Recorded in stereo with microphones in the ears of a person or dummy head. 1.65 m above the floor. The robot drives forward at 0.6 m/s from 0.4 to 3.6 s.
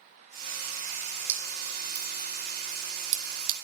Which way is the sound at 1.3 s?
55° right (ahead or behind).